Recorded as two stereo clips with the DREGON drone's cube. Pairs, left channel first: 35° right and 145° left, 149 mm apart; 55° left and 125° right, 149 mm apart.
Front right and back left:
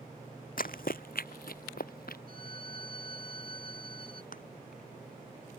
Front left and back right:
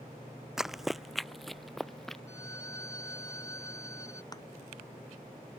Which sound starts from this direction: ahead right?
Running footsteps, at 0.6 s.